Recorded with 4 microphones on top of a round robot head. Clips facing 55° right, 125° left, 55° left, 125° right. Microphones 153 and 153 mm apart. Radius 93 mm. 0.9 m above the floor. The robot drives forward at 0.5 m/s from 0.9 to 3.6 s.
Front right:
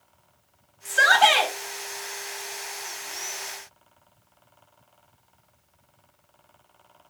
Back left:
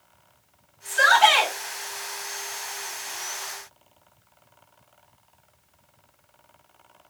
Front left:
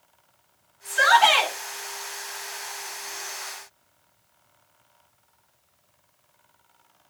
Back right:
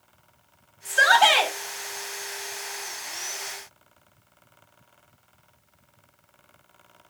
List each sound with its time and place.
0.8 s a shout: 80° right, 1.1 m; by 1.5 s 100° right, 1.1 m